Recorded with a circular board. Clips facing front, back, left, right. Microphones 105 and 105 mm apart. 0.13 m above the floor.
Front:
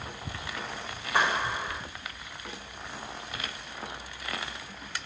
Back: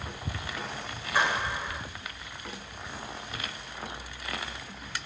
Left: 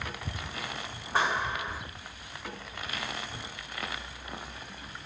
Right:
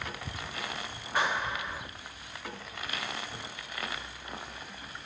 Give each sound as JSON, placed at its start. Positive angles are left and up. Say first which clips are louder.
{"t": 1.1, "sound": "a clap", "louder": "front 1 dB, left 2 dB", "azimuth_deg": 30, "distance_m": 6.5}